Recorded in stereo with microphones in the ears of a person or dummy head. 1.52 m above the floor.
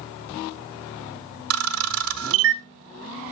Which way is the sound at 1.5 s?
80° right.